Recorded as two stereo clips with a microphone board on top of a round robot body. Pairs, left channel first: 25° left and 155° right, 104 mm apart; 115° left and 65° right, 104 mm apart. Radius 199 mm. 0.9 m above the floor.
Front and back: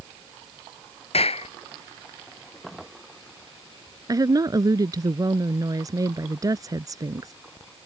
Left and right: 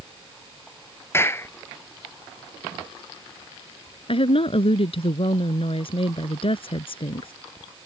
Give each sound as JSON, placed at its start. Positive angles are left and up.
{"t": 1.1, "sound": "a clap", "azimuth_deg": 45}
{"t": 4.1, "sound": "a woman speaking", "azimuth_deg": 145}